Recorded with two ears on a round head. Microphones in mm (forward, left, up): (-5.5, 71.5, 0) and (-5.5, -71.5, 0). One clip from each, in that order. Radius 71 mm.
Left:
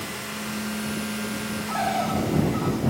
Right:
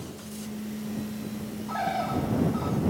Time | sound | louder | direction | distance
1.7 | a bird | left 3 dB | 5° left (ahead or behind) | ?